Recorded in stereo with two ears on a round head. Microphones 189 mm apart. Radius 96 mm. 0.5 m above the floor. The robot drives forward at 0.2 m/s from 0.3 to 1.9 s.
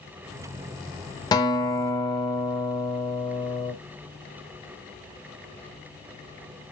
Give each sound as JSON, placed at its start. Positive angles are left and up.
{"t": 1.3, "sound": "a guitar", "side_deg": 20, "distance_m": 1.1}